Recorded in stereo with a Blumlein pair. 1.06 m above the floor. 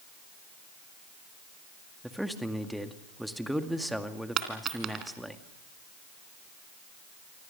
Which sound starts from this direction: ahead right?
A dropped coin, at 4.4 s.